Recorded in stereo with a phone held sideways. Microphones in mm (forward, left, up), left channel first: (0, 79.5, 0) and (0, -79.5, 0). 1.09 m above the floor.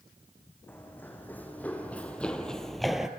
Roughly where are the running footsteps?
Centre.